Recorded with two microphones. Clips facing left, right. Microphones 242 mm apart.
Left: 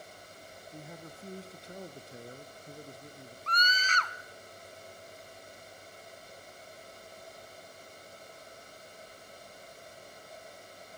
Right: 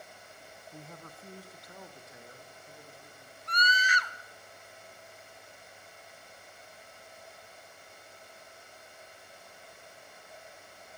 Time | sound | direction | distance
0.7 | a man speaking | 5° left (ahead or behind) | 1.2 m
3.5 | a scream | 10° right (ahead or behind) | 1.2 m